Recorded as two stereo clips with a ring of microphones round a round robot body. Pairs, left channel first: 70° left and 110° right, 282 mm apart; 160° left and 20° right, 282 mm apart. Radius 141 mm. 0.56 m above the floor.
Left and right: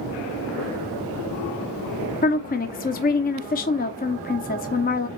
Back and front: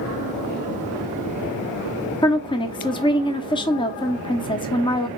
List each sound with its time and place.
2.2 s a woman speaking: 95° left, 0.7 m